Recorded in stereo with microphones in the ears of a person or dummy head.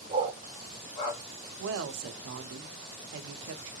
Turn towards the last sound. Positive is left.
turn(degrees=-75)  # may be behind; listen again after turning